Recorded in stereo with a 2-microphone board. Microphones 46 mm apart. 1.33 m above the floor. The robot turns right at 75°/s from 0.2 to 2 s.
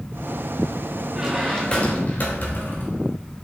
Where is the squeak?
15° right, 1.9 m; by 3.1 s 50° left, 1.9 m.